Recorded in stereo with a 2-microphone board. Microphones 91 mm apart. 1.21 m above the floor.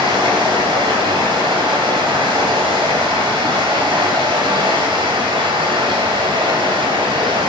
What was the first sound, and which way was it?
Running water, 75° right (ahead or behind).